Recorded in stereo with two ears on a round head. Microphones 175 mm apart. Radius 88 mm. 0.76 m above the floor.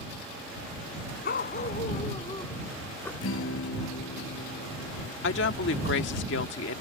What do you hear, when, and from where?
1.2 s a dog barking: 50° left (ahead or behind); by 3.1 s 10° left (ahead or behind)
3.2 s a guitar: 75° left (ahead or behind)
5.2 s a woman speaking: 65° left (ahead or behind)